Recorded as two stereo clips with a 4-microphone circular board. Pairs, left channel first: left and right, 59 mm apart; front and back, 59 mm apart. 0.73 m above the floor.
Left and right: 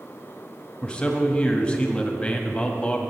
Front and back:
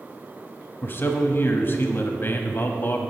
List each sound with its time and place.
0.8 s a man speaking: 20° left, 1.2 m